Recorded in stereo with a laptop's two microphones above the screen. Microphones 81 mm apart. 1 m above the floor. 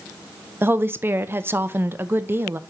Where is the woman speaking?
25° right (ahead or behind), 0.6 m.